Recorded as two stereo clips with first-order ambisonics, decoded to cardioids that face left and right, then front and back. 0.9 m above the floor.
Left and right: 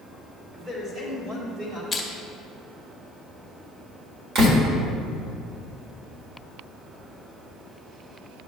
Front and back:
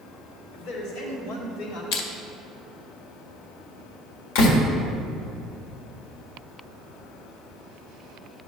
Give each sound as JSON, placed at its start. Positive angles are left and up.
{"t": 0.5, "sound": "a man speaking", "azimuth_deg": -30, "distance_m": 2.5}
{"t": 1.9, "sound": "crushing", "azimuth_deg": 5, "distance_m": 1.1}
{"t": 4.3, "sound": "a door slam", "azimuth_deg": -35, "distance_m": 1.6}